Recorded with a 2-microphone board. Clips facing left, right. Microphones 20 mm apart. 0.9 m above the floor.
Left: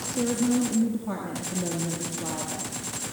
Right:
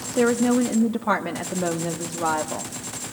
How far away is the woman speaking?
About 1.5 m.